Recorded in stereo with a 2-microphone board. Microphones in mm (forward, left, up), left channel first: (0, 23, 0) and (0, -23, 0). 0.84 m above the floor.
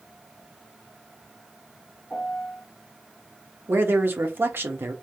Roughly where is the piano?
Centre.